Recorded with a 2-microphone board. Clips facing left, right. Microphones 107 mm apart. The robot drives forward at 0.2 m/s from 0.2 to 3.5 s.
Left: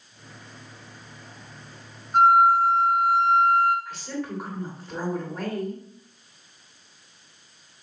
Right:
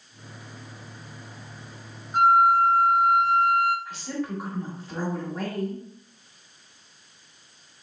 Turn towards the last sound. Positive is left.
turn(degrees=0)  # may be behind; listen again after turning